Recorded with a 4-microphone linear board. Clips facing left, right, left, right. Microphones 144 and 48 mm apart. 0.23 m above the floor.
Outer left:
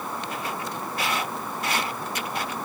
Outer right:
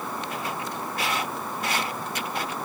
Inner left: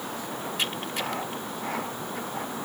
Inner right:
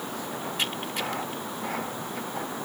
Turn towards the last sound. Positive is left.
No sound to turn to.